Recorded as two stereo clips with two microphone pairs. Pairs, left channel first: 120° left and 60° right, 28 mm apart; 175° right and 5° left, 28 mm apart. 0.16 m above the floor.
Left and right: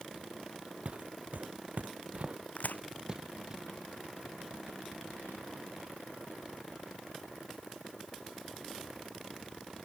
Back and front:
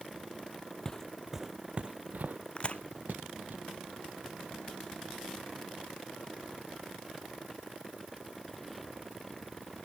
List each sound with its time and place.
0.8 s footsteps: 105° right; by 3.6 s 5° left
2.6 s a crack: 135° left